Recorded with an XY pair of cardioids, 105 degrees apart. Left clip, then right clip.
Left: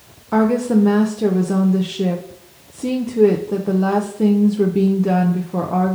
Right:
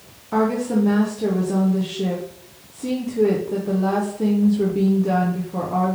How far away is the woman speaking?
About 0.5 m.